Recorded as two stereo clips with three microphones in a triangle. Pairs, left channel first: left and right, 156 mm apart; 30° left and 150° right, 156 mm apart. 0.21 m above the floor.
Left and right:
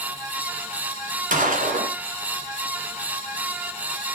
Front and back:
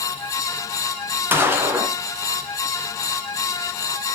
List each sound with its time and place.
1.3 s a gunshot: 75° right, 1.9 m